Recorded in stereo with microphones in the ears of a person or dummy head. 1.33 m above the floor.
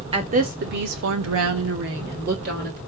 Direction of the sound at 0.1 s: 30° right (ahead or behind).